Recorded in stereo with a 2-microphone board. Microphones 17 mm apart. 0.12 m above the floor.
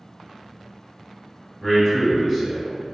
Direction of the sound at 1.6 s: 10° right (ahead or behind).